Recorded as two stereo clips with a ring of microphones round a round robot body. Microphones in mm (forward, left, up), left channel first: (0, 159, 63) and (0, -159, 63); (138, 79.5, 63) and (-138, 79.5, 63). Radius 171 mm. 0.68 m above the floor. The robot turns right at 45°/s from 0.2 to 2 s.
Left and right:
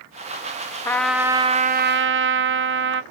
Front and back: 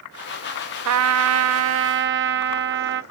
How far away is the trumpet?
About 0.6 m.